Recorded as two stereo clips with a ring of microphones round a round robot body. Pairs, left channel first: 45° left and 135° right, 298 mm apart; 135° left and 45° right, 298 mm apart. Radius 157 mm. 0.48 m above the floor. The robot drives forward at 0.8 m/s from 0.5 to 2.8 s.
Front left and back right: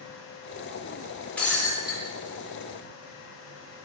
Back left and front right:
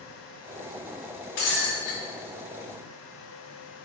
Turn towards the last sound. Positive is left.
turn(degrees=145)